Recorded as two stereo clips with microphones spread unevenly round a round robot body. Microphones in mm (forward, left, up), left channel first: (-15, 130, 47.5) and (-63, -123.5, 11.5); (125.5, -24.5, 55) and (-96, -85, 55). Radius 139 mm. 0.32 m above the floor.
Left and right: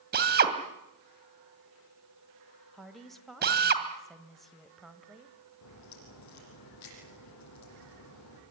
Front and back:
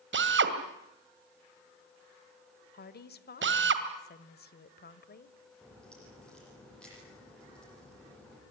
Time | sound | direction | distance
0.1 | a drill | 140° right | 2.5 m
2.7 | a woman speaking | 15° right | 1.6 m
5.6 | a crack | 100° left | 9.5 m